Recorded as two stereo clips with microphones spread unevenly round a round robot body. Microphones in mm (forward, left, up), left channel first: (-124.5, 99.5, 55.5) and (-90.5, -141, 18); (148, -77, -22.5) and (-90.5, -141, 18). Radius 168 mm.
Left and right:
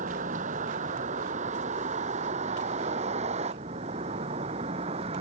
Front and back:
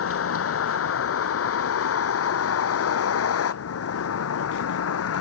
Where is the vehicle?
15° right; by 5.2 s 10° right.